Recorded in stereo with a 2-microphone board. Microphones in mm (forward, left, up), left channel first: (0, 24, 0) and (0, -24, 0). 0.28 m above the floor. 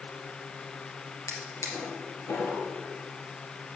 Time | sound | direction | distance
1.3 | a drawer | 80° left | 3 m